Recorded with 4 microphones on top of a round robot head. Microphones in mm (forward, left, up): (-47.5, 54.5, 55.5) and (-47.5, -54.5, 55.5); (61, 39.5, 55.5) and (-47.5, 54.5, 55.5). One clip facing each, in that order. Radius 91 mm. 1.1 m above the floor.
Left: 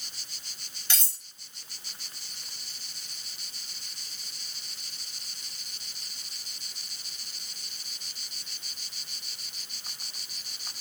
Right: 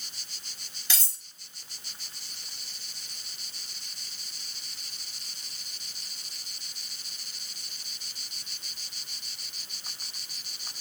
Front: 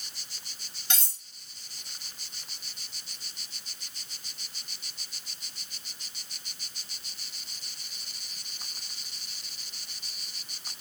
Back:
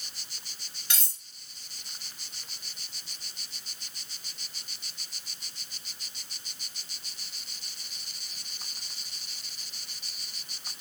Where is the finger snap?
I don't hear a finger snap.